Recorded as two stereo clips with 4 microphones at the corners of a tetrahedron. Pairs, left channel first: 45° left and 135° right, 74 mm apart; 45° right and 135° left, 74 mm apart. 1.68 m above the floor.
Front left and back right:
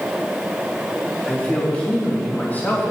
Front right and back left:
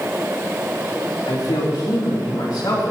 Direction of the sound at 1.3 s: 30° right.